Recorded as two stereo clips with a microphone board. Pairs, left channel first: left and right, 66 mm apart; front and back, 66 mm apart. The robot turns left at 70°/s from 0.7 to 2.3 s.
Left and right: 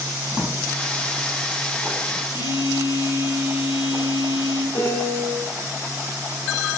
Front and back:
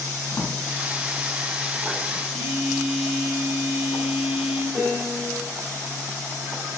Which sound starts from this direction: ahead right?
A drawer, at 0.3 s.